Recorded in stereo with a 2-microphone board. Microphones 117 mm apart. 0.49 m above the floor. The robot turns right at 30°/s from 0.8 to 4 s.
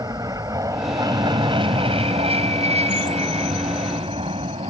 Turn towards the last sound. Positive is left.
turn(degrees=-55)  # may be behind; listen again after turning